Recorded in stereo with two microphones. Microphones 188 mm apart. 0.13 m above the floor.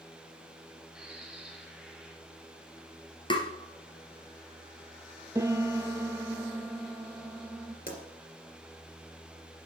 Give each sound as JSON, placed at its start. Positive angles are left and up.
{"t": 0.9, "sound": "a bird", "side_deg": -5, "distance_m": 2.0}
{"t": 3.3, "sound": "tapping", "side_deg": 25, "distance_m": 1.3}
{"t": 5.3, "sound": "a piano", "side_deg": -15, "distance_m": 0.7}
{"t": 7.9, "sound": "a pop", "side_deg": 45, "distance_m": 2.5}